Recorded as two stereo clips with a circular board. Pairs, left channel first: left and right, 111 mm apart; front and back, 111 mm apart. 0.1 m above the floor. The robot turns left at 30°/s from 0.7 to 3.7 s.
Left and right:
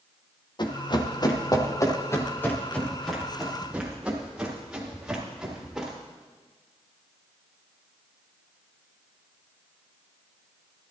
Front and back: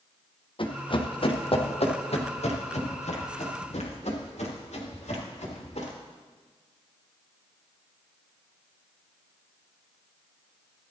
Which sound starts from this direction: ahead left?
Running footsteps, at 0.6 s.